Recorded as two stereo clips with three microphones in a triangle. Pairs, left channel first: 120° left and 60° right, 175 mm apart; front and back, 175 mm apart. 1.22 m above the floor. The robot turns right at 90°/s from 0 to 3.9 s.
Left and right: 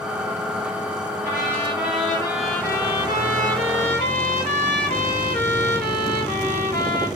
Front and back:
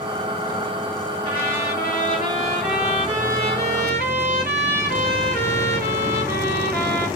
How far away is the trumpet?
About 2.5 m.